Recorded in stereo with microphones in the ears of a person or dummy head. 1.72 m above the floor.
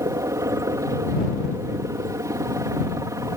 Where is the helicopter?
15° right (ahead or behind).